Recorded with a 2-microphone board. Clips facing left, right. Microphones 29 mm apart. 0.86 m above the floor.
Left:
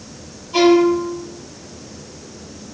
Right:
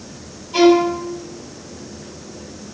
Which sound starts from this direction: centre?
A violin, at 0.5 s.